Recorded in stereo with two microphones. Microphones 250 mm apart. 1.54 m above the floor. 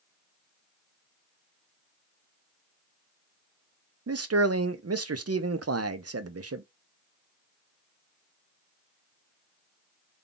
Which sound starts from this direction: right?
A man speaking, at 4.1 s.